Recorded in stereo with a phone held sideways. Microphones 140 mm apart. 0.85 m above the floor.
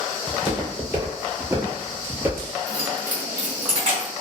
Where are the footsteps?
10° right (ahead or behind), 1.2 m; by 2.5 s 15° right (ahead or behind), 1.2 m.